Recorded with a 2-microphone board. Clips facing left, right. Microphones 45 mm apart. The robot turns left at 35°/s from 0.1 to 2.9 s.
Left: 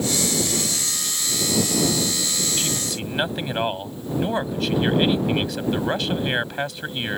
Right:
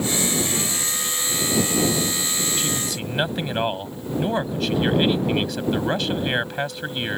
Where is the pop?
No pop in this recording.